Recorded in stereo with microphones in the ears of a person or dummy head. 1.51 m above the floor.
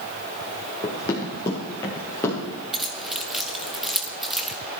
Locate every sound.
0.8 s running footsteps: 30° left (ahead or behind), 3.5 m; by 2.6 s 15° left (ahead or behind), 6 m
2.7 s keys jangling: centre (ahead or behind), 1.5 m